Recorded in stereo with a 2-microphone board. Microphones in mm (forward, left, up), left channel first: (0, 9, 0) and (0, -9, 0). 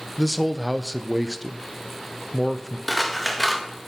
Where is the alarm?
I don't hear an alarm.